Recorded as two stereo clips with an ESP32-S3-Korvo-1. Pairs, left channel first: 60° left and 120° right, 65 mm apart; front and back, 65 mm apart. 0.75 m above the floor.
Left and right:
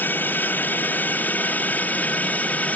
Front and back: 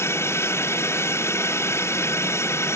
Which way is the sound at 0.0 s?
15° left.